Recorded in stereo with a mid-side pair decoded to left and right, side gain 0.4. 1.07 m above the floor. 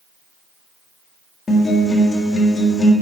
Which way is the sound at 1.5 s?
40° left.